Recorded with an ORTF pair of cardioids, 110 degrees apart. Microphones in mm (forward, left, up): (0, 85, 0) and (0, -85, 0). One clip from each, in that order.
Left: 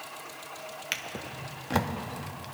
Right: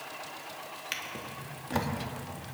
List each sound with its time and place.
0.9 s a drawer: 25° left, 0.9 m